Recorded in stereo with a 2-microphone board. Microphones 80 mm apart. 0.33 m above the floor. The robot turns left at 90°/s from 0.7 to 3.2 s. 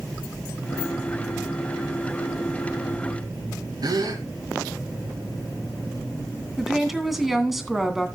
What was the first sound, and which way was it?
A gasp, 60° right (ahead or behind).